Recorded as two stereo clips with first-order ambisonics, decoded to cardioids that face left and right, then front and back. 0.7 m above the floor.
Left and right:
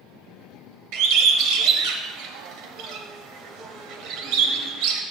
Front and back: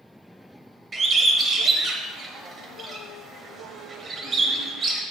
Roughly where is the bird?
Right.